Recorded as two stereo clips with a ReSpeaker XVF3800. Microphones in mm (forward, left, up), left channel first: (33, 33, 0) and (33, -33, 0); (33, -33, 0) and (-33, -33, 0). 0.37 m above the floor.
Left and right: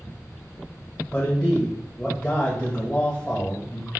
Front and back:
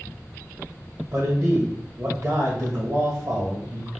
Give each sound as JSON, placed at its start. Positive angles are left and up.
{"t": 1.1, "sound": "a man speaking", "azimuth_deg": 165, "distance_m": 1.3}